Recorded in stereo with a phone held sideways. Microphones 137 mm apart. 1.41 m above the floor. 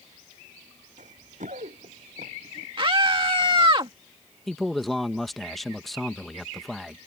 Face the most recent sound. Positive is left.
turn(degrees=0)  # may be behind; listen again after turning